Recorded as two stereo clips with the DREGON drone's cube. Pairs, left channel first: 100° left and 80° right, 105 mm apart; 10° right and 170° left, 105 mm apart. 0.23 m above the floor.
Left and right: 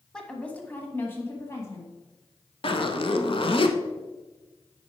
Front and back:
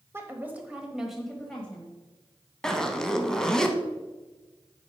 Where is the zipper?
75° left, 0.7 m.